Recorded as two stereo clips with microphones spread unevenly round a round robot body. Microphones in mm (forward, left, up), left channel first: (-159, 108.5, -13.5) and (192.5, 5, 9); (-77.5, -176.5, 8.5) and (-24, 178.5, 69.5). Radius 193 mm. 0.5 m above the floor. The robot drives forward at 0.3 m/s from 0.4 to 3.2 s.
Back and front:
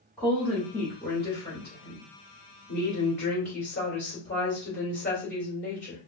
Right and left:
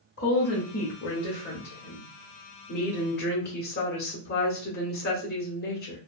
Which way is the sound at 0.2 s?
115° right.